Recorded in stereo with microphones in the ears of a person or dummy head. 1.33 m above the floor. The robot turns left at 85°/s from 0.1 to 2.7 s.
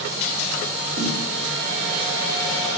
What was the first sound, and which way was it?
A snare drum, 60° right (ahead or behind).